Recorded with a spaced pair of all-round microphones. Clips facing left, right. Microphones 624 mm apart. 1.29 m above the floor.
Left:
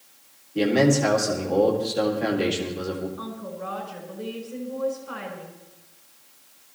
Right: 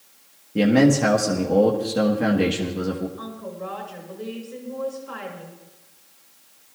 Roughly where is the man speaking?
Right.